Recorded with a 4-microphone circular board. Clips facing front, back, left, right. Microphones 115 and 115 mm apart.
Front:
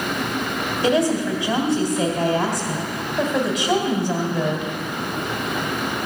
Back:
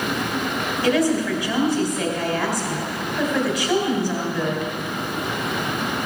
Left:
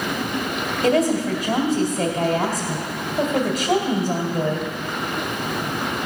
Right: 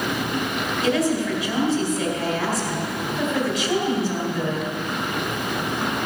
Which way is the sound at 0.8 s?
60° left.